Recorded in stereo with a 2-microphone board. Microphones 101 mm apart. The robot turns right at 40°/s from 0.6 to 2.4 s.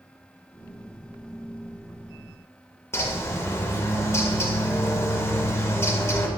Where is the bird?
25° left (ahead or behind), 0.5 m.